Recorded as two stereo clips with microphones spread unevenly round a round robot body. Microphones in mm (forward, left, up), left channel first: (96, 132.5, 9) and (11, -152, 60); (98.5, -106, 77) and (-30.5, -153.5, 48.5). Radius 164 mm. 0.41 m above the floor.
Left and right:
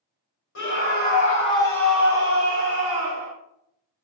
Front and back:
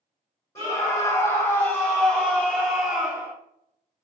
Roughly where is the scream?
Left.